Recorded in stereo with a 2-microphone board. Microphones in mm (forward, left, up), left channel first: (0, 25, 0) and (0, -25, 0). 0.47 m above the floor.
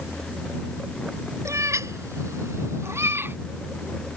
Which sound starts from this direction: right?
A cat meowing, at 1.4 s.